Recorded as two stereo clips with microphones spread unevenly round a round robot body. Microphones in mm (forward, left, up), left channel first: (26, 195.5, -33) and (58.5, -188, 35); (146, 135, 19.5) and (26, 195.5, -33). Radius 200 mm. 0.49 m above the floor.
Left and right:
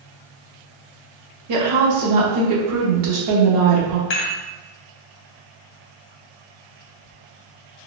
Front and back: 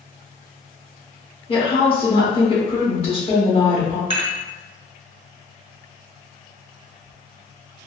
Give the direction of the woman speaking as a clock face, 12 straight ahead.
3 o'clock.